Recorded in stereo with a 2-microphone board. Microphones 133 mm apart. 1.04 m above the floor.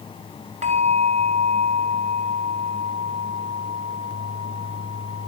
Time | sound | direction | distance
0.6 | a bell | 65° right (ahead or behind) | 2.5 m